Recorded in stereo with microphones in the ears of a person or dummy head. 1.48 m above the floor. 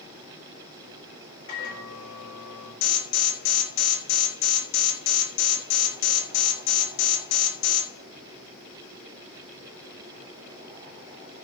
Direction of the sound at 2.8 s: 75° left (ahead or behind).